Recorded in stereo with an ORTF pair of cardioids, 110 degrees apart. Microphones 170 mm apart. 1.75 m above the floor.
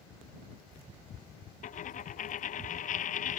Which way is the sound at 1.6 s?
55° left.